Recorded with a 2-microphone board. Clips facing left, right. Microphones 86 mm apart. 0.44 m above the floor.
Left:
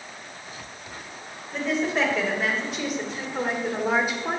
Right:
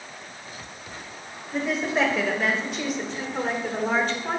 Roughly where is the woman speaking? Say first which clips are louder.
Even; centre.